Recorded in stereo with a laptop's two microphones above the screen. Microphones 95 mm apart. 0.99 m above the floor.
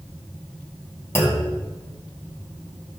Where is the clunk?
30° left (ahead or behind), 2.5 m.